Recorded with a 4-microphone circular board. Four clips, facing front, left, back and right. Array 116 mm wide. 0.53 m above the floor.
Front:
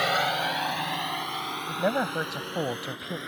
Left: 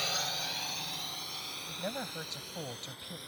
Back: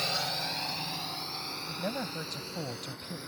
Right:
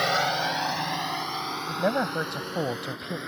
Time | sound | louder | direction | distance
0.0 | a drone | right 14 dB, front 10 dB | 55° right | ?
1.7 | a man speaking | right 13 dB, front 9 dB | 55° right | ?